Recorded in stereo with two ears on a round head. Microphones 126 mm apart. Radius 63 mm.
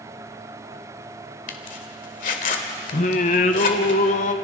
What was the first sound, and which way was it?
A zipper, 65° left (ahead or behind).